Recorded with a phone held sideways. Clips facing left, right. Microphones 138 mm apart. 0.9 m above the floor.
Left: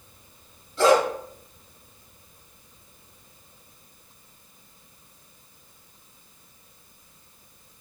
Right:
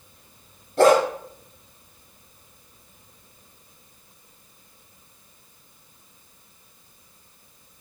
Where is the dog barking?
55° right (ahead or behind), 2 m.